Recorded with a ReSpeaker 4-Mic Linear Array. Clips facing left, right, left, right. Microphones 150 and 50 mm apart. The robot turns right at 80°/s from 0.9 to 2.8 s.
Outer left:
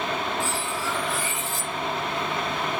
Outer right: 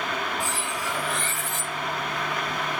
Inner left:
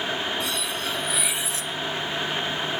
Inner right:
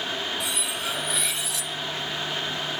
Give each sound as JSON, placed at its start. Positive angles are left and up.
{"t": 0.4, "sound": "cutlery clinking", "azimuth_deg": -15, "distance_m": 0.7}